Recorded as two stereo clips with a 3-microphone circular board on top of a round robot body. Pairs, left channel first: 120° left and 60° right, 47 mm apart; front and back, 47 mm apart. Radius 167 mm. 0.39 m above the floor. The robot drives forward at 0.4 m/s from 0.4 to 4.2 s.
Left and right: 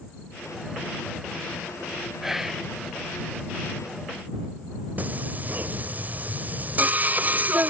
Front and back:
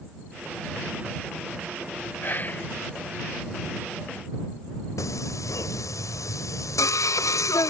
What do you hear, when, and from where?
2.2 s whispering: 20° left; by 2.7 s 30° left
5.0 s singing: straight ahead